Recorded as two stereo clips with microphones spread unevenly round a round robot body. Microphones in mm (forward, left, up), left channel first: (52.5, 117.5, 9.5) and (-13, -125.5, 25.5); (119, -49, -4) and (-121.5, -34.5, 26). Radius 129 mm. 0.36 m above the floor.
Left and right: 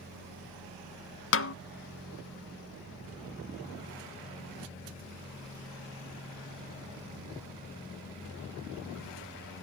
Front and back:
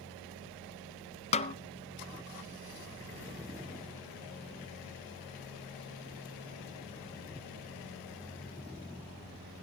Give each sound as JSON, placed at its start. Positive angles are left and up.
{"t": 1.3, "sound": "a snare drum", "azimuth_deg": 55, "distance_m": 0.5}